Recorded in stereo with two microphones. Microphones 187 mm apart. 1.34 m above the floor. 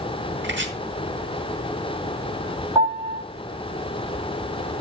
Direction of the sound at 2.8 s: 20° right (ahead or behind).